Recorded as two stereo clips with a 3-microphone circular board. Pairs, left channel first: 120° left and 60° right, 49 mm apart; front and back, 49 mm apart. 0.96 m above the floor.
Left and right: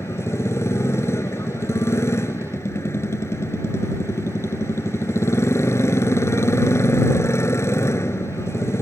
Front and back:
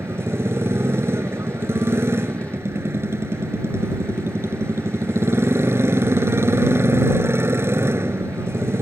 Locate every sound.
0.0 s a motorcycle: 145° left